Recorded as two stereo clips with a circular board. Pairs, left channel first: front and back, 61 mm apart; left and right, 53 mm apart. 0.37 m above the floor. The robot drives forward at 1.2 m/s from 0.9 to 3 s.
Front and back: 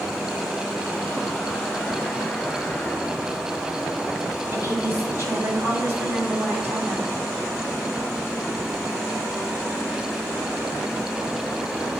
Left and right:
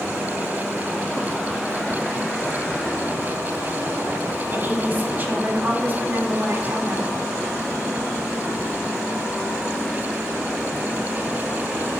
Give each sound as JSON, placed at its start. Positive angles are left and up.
{"t": 4.5, "sound": "a woman speaking", "azimuth_deg": -135, "distance_m": 3.0}